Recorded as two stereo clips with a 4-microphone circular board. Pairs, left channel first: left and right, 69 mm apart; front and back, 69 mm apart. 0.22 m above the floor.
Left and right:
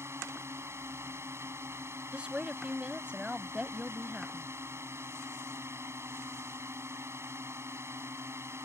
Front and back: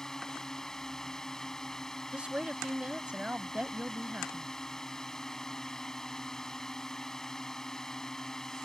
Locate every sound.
0.0 s a drone: 80° right
2.1 s a woman speaking: 135° right